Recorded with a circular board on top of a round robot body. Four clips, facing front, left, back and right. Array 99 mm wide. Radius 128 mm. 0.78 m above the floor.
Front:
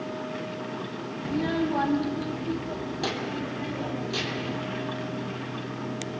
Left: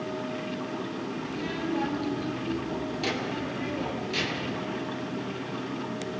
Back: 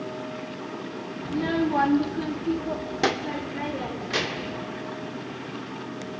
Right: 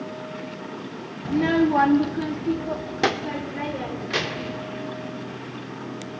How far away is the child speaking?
About 0.6 m.